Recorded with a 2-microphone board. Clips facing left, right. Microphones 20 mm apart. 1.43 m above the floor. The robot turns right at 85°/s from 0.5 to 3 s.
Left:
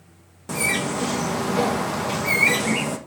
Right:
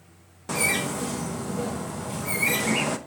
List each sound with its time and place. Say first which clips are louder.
0.5 s a bird: left 2 dB; 10° right, 1.0 m; by 3.0 s 160° right, 1.0 m